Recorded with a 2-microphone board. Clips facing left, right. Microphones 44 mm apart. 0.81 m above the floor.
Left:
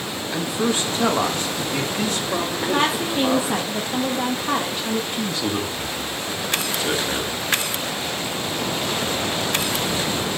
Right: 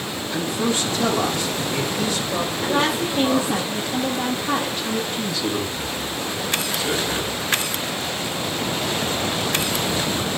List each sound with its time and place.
0.3 s a man speaking: 20° left (ahead or behind), 1.3 m; by 3.6 s 60° left (ahead or behind), 2.5 m
2.6 s a woman speaking: 15° left (ahead or behind), 0.9 m
5.1 s a man speaking: 40° left (ahead or behind), 1.8 m